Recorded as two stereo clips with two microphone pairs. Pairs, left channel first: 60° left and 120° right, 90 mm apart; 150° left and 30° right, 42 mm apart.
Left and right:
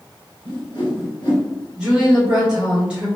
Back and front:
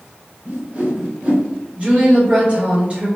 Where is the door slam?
I don't hear a door slam.